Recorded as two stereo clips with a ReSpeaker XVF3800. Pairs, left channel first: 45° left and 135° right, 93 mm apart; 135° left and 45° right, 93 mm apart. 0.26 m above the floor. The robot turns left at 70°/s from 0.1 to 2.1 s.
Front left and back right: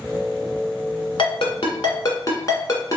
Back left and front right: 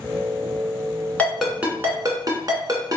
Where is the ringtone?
65° left, 1.0 m; by 3.0 s straight ahead, 1.0 m.